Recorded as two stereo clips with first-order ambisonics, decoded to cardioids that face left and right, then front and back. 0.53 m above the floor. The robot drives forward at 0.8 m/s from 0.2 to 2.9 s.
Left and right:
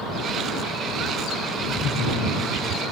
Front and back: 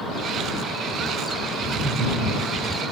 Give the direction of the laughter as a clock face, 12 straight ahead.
7 o'clock.